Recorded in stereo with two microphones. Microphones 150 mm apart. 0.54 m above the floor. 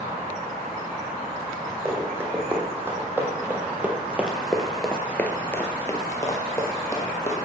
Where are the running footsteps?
15° right (ahead or behind), 1.7 m; by 7.5 s 20° left (ahead or behind), 1.3 m.